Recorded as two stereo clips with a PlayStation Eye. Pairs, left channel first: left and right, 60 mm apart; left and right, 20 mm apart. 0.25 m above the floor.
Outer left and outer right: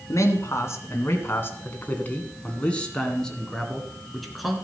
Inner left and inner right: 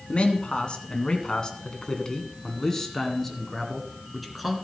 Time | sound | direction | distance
0.1 | a man speaking | 50° left (ahead or behind) | 2 m